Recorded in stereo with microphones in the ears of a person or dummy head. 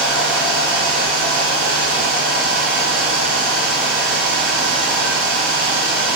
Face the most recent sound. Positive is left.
turn(degrees=-40)  # may be behind; listen again after turning